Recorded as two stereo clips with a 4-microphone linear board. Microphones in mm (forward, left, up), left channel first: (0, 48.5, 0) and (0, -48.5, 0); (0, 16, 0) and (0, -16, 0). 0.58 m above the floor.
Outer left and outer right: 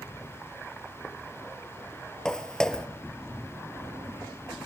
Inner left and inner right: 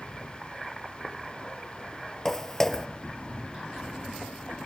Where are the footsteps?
10° left (ahead or behind), 0.8 m.